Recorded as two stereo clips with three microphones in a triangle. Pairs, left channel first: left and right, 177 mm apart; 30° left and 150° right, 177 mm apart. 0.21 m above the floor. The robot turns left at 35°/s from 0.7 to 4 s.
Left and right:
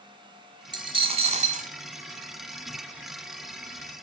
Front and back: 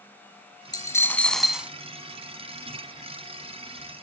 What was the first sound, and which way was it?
A dropped coin, 35° right.